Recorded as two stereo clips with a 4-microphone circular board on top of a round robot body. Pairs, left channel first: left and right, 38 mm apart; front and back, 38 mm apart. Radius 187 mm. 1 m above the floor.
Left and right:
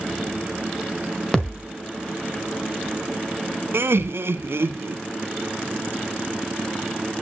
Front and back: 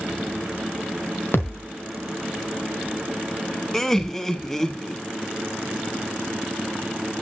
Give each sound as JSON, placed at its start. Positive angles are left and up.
{"t": 1.3, "sound": "a thud", "azimuth_deg": 20, "distance_m": 1.2}
{"t": 3.7, "sound": "laughter", "azimuth_deg": -75, "distance_m": 2.0}